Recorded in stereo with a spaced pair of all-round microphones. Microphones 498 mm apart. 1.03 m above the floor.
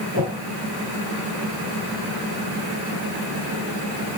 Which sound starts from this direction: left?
A whoosh, at 0.1 s.